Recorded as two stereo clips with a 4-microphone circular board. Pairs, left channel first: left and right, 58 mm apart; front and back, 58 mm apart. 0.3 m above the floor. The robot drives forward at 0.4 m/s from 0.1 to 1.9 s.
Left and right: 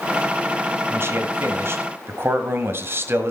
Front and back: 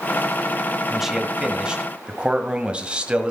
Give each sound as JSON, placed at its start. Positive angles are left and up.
{"t": 0.9, "sound": "a man speaking", "azimuth_deg": -95, "distance_m": 1.6}